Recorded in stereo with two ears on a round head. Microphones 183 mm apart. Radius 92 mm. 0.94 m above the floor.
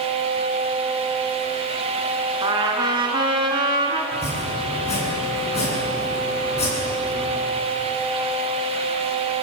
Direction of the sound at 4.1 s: 30° left (ahead or behind).